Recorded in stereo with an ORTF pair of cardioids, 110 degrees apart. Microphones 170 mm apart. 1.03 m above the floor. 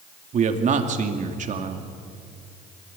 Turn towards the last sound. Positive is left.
turn(degrees=-50)